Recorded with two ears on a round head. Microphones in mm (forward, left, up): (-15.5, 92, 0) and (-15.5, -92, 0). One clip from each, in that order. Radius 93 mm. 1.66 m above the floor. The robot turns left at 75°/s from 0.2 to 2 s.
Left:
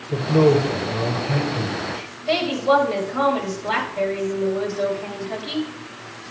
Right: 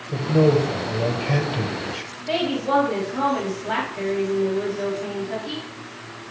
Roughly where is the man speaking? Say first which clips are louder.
Left 2 dB; ahead left.